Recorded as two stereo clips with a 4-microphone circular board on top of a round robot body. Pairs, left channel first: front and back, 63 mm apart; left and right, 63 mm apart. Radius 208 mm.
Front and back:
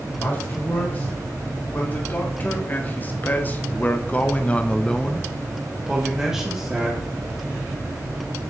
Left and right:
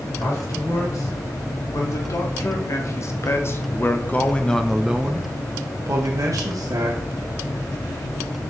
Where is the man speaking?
60° left, 4 m; by 7.0 s 110° right, 2.0 m.